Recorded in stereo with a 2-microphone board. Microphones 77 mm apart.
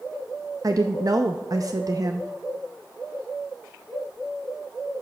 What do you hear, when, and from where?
0.6 s a woman speaking: 50° right (ahead or behind), 0.6 m